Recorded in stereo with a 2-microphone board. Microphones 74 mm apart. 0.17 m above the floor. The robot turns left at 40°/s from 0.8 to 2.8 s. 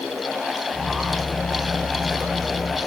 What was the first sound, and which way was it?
Only background noise.